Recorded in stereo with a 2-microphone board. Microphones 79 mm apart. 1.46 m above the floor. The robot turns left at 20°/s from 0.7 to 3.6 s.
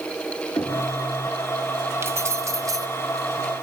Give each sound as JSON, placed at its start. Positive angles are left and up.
{"t": 0.6, "sound": "knocking", "side_deg": 50, "distance_m": 4.0}
{"t": 2.0, "sound": "keys jangling", "side_deg": -30, "distance_m": 1.0}